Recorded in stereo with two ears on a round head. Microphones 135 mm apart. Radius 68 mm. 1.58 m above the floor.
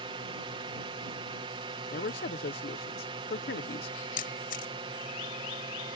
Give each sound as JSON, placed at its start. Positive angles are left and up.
{"t": 0.0, "sound": "a drone", "side_deg": -35}
{"t": 1.9, "sound": "a man speaking", "side_deg": 65}
{"t": 4.2, "sound": "a camera shutter", "side_deg": 60}